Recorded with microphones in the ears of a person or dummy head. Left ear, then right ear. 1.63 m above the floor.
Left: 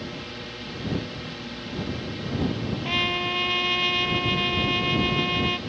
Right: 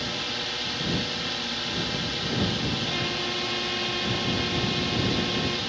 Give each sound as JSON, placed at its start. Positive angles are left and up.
{"t": 0.0, "sound": "a drone", "side_deg": -35}
{"t": 2.8, "sound": "a trumpet", "side_deg": 30}